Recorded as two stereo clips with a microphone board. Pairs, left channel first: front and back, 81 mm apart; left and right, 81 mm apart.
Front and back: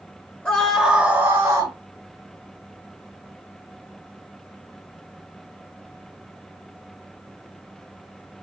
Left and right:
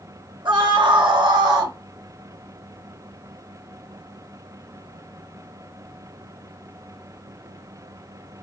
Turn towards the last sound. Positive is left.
turn(degrees=-145)